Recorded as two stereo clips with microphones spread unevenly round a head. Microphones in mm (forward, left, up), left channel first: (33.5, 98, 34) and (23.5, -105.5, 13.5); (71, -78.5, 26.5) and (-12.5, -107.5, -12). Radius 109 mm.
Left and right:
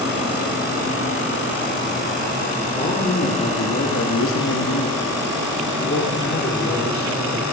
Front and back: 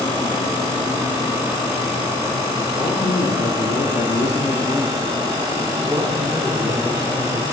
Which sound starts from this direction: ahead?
A man speaking, at 2.8 s.